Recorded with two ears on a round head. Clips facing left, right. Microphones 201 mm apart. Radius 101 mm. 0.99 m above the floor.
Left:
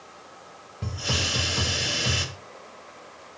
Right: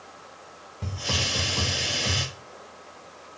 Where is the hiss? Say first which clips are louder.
Left 1 dB; 5° left (ahead or behind), 1.0 m.